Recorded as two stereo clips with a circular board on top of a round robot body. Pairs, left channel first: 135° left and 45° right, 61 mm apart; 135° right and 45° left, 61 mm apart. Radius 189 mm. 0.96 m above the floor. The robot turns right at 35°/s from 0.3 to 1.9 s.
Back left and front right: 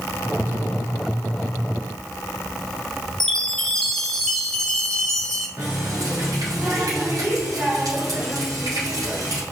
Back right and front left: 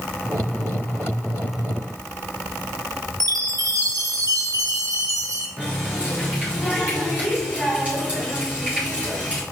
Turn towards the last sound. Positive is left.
turn(degrees=-25)